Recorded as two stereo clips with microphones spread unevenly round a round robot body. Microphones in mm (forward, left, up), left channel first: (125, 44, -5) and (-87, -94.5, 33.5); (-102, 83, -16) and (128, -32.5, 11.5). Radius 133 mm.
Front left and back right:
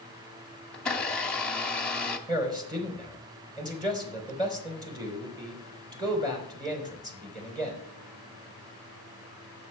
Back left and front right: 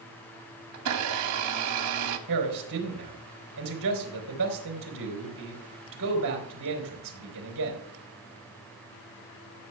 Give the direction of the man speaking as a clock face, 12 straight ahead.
2 o'clock.